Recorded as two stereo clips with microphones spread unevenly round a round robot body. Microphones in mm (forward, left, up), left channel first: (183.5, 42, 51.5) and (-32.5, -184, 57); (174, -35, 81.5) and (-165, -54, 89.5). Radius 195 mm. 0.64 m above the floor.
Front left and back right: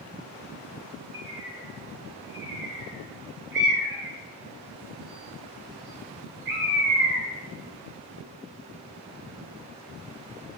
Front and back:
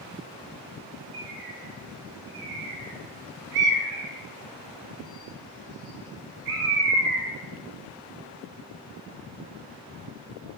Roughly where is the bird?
Behind.